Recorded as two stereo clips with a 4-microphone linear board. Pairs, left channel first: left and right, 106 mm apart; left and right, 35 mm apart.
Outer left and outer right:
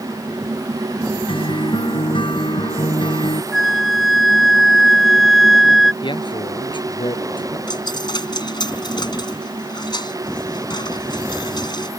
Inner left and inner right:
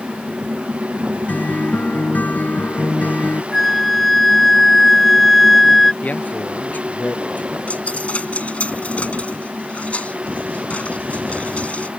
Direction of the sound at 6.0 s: 50° left (ahead or behind).